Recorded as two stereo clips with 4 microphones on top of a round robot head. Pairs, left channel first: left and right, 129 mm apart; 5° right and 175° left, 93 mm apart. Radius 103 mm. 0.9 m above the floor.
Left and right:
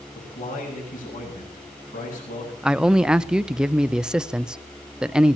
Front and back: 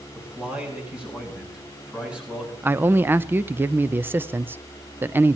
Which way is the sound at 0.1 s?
100° left.